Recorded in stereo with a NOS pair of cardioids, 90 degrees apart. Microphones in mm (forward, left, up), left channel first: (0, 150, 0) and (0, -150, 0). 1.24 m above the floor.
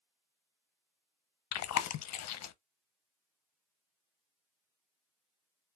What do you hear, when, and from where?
1.5 s chewing: 60° left, 0.7 m